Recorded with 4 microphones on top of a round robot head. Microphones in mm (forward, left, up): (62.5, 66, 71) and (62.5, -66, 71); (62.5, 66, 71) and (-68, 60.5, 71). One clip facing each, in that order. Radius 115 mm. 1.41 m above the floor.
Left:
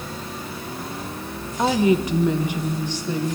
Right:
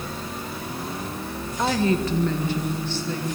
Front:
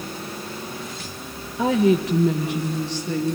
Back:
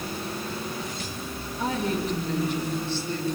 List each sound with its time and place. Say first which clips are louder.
1.6 s a woman speaking: left 4 dB, front 9 dB; 15° left, 1.2 m